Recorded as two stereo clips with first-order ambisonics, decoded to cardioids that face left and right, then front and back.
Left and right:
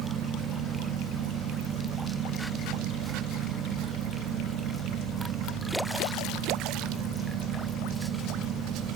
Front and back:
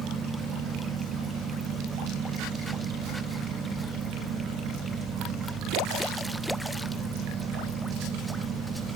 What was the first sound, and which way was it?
Only background noise.